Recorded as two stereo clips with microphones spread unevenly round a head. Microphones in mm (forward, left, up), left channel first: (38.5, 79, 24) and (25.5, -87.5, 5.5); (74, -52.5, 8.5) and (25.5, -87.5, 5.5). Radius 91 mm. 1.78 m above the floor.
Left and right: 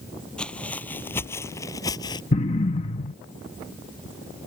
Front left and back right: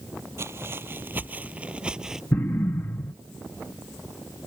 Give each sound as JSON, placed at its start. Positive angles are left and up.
{"t": 0.4, "sound": "footsteps", "azimuth_deg": 165}
{"t": 2.3, "sound": "an explosion", "azimuth_deg": 70}